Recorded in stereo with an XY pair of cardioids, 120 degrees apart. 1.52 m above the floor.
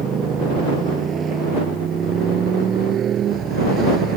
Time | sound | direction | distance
0.0 | a motorcycle | 35° right | ?